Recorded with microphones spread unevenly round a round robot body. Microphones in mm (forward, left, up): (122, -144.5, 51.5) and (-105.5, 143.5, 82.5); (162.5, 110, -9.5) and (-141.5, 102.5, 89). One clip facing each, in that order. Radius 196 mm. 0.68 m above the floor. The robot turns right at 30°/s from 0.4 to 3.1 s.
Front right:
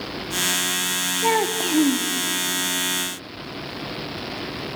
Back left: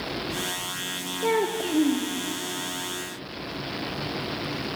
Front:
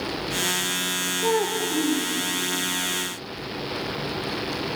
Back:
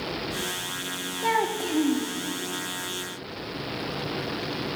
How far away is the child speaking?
About 0.5 m.